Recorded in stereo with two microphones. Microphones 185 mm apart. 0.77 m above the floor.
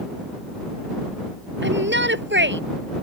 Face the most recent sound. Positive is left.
turn(degrees=-85)